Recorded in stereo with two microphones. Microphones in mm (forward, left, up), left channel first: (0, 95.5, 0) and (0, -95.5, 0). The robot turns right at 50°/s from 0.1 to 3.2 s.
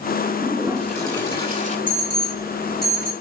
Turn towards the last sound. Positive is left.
turn(degrees=-165)